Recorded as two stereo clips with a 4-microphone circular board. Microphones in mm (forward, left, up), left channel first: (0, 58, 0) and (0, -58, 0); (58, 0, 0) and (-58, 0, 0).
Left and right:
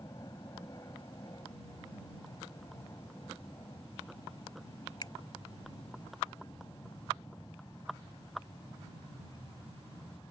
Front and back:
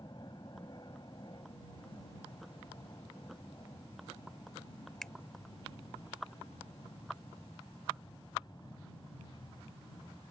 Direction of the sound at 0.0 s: 40° left.